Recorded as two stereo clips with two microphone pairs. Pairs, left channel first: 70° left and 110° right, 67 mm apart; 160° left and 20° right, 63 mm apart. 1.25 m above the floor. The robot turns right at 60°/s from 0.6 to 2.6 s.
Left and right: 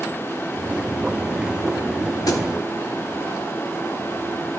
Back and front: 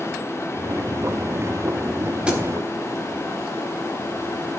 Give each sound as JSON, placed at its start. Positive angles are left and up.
{"t": 2.3, "sound": "a thud", "azimuth_deg": 50, "distance_m": 1.6}